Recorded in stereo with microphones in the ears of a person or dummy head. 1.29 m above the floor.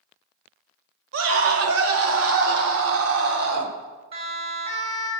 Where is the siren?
30° right (ahead or behind), 6 m.